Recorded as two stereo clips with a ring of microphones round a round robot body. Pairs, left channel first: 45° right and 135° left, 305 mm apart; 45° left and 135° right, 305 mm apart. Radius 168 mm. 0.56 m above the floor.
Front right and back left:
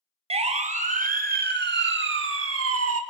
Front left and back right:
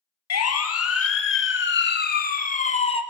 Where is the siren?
65° left, 2.5 m; by 3.0 s 115° left, 2.5 m.